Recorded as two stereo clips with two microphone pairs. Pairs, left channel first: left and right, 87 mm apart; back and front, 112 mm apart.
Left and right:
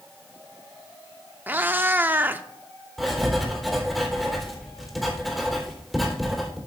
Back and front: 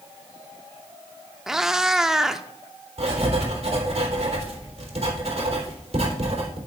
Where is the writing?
Straight ahead, 3.5 m.